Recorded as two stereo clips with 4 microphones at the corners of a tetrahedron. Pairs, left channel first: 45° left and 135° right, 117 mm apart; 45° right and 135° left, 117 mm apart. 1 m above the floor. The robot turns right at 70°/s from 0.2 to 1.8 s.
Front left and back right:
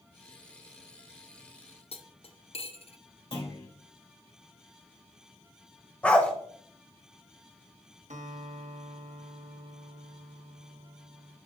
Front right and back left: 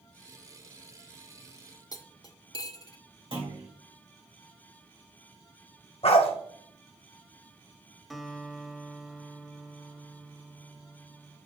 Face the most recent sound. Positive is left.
turn(degrees=-135)